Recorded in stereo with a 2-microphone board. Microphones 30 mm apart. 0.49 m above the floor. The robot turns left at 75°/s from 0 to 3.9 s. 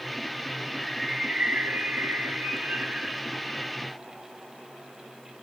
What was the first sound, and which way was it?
A bird, 15° left.